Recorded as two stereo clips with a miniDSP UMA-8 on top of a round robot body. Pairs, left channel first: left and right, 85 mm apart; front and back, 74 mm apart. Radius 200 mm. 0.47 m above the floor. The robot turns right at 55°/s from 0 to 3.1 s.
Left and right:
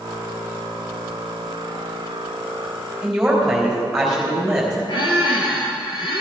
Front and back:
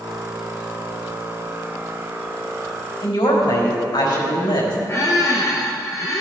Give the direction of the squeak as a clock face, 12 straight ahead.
10 o'clock.